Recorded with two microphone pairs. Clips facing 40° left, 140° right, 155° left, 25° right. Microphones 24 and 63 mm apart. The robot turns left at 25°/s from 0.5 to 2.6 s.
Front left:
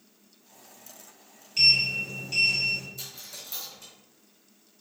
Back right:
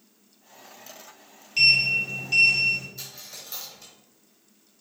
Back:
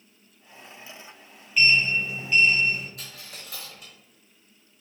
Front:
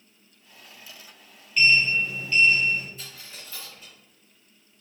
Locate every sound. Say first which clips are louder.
1.6 s a sliding door: back right 3 dB, front 1 dB; 130° right, 1.3 m; by 2.9 s 155° right, 1.3 m
3.0 s a dropped coin: back right 1 dB, back 1 dB; 170° left, 1.5 m